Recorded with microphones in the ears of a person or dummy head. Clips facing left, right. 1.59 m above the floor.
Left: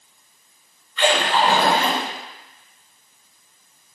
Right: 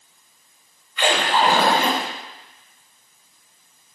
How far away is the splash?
About 1.3 m.